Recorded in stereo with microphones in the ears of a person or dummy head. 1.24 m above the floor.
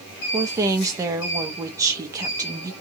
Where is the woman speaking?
15° right (ahead or behind), 0.6 m.